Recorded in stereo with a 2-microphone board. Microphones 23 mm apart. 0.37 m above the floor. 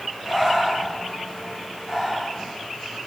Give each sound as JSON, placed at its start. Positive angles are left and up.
{"t": 0.2, "sound": "breathing", "side_deg": -5, "distance_m": 3.5}